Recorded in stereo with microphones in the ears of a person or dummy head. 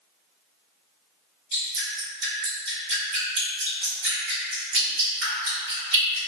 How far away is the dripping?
About 1.6 m.